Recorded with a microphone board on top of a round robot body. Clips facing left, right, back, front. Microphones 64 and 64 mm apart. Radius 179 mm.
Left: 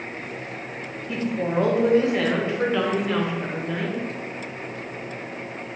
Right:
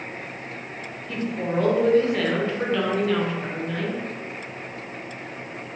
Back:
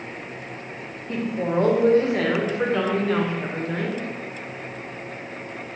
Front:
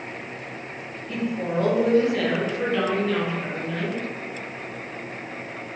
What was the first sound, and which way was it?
A woman speaking, 155° left.